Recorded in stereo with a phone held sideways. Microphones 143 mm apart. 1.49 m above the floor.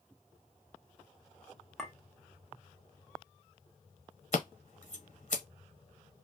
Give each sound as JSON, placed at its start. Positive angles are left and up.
{"t": 1.8, "sound": "a clink", "side_deg": 0, "distance_m": 0.8}
{"t": 4.3, "sound": "scissors", "side_deg": 60, "distance_m": 0.9}